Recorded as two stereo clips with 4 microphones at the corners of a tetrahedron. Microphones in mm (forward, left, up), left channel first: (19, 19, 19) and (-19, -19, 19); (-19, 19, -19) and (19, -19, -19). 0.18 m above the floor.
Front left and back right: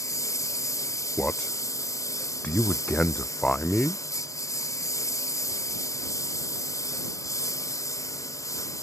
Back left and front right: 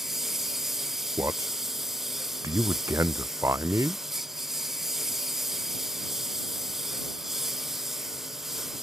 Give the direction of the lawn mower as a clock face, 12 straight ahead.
11 o'clock.